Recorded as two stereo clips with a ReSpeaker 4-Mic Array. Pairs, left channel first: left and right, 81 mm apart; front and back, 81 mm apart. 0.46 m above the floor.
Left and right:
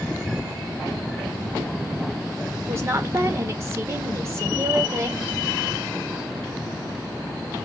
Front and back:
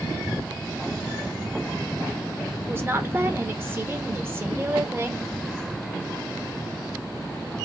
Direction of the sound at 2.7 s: 130° right.